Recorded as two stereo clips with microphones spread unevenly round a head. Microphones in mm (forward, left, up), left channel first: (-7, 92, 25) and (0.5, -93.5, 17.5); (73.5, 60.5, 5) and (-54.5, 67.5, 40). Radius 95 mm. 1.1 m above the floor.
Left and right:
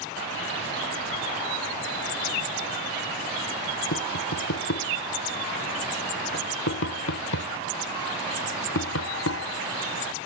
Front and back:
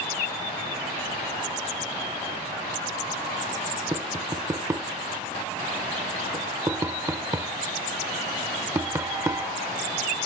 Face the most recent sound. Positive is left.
turn(degrees=110)